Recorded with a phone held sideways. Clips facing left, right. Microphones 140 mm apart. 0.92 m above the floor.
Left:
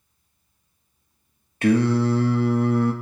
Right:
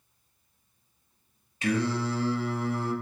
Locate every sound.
1.6 s singing: 65° left (ahead or behind), 0.5 m